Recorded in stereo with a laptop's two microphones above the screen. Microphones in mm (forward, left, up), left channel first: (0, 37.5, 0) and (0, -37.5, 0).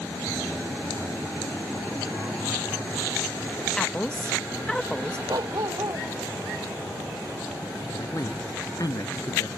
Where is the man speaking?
55° left (ahead or behind).